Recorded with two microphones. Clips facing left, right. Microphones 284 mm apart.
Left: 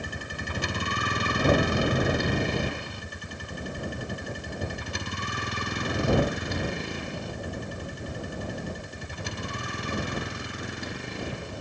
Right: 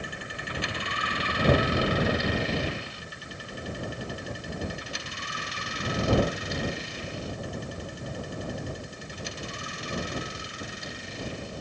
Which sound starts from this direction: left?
A vehicle, at 0.0 s.